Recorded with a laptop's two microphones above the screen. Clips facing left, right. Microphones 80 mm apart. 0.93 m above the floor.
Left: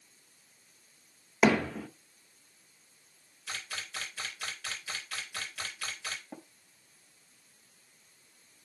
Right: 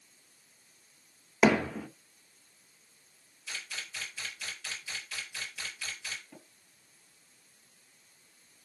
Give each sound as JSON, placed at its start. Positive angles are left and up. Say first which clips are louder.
{"t": 1.4, "sound": "hammering", "louder": "right 1 dB", "side_deg": -5, "distance_m": 0.9}
{"t": 3.5, "sound": "a camera shutter", "louder": "left 2 dB", "side_deg": 55, "distance_m": 4.0}
{"t": 6.3, "sound": "tapping", "louder": "left 6 dB", "side_deg": 50, "distance_m": 3.5}